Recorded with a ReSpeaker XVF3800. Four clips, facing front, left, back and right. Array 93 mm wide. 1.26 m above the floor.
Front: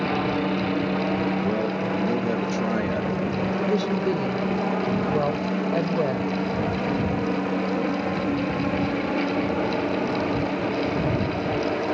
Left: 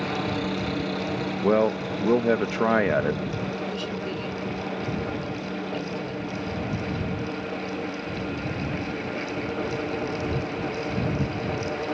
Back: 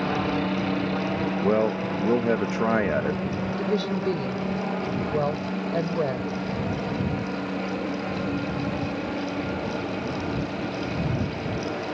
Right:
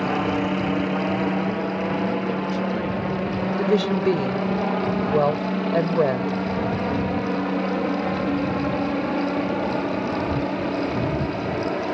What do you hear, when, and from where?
0.0 s a helicopter: 85° right; by 11.9 s 65° right
1.4 s a man speaking: 120° left
3.6 s a woman speaking: 85° right